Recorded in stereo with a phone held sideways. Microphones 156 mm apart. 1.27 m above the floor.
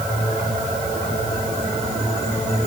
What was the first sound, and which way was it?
Only background noise.